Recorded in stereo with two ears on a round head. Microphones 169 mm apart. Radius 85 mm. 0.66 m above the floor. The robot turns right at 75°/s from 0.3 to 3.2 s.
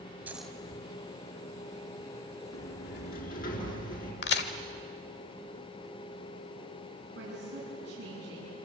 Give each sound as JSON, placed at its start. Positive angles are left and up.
{"t": 0.3, "sound": "a dropped coin", "side_deg": -10, "distance_m": 2.0}
{"t": 2.5, "sound": "a sliding door", "azimuth_deg": 80, "distance_m": 4.5}
{"t": 4.2, "sound": "a crack", "side_deg": 60, "distance_m": 1.4}
{"t": 7.2, "sound": "a woman speaking", "side_deg": -60, "distance_m": 7.5}